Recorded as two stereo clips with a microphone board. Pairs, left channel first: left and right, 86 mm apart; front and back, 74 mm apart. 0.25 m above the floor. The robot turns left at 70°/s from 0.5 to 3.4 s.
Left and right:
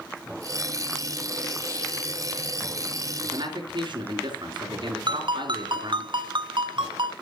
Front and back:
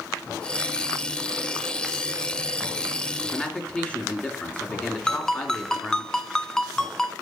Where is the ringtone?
85° right, 1.0 m.